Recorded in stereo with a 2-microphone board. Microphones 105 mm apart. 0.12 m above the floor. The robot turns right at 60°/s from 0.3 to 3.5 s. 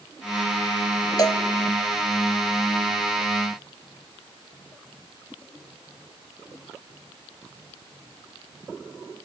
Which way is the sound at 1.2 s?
40° left (ahead or behind).